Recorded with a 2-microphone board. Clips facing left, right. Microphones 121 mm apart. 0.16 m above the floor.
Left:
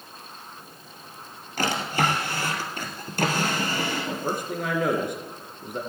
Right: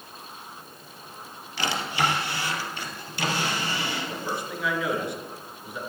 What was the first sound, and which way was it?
A drawer, 45° left (ahead or behind).